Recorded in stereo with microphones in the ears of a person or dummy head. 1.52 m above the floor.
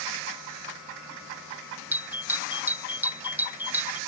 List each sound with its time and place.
1.9 s a doorbell: 10° right (ahead or behind)